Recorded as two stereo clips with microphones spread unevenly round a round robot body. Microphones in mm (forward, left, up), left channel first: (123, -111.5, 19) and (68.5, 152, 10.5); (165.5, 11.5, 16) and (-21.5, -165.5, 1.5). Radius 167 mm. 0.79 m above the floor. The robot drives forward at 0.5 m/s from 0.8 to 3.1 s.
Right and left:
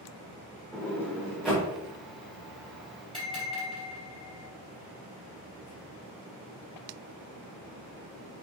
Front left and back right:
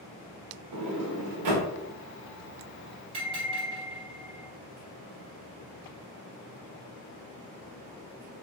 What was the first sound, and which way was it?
A sliding door, 160° right.